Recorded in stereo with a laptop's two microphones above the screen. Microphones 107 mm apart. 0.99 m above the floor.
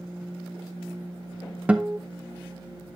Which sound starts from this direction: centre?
A guitar, at 1.7 s.